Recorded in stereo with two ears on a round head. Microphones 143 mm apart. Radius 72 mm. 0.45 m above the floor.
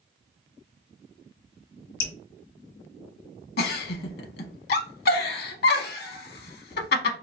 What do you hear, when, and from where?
2.0 s dripping: 55° left (ahead or behind), 1.2 m
3.6 s a giggle: 65° left (ahead or behind), 0.6 m